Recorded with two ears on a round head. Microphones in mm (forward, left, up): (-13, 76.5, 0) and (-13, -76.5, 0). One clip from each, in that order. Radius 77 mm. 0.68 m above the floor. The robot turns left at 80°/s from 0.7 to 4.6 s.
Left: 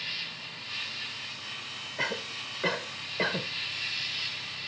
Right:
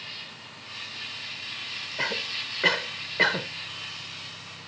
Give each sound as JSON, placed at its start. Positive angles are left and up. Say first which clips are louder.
{"t": 0.0, "sound": "an insect", "louder": "left 4 dB", "azimuth_deg": 30}
{"t": 2.0, "sound": "a cough", "louder": "right 3 dB", "side_deg": -5}